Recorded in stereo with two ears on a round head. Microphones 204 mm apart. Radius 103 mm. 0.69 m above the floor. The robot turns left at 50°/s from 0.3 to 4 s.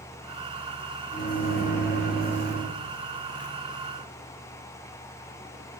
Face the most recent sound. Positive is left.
turn(degrees=-95)